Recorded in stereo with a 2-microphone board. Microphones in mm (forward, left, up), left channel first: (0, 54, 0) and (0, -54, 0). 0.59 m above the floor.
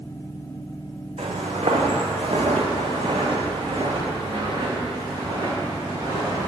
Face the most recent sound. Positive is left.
turn(degrees=-30)  # may be behind; listen again after turning